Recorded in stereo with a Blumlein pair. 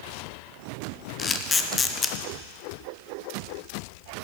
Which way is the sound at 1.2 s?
15° left.